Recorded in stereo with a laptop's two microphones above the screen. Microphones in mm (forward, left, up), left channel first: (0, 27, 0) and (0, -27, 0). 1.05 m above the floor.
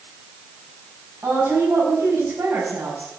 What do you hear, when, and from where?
1.2 s a woman speaking: 65° right (ahead or behind), 6 m